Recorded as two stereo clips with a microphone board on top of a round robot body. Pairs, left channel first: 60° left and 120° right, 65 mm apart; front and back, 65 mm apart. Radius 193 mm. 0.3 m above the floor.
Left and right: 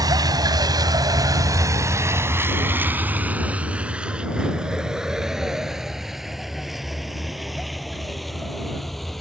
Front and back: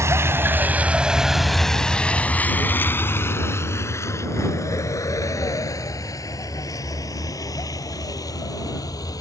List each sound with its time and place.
0.0 s a vehicle: 135° right; by 9.2 s 25° right